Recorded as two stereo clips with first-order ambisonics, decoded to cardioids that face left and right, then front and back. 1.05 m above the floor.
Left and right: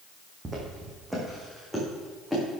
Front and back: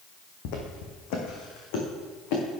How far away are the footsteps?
About 3 m.